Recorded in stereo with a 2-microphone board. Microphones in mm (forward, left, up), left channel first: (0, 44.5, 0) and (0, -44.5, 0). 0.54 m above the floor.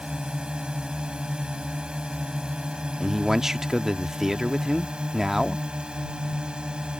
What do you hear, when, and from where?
0.0 s a drone: 10° right (ahead or behind)
3.0 s a man speaking: 5° right (ahead or behind)